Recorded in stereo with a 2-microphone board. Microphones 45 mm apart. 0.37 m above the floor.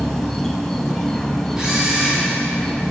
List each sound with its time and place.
0.0 s an insect: 10° left (ahead or behind), 1.5 m
1.6 s a camera shutter: 15° right (ahead or behind), 6 m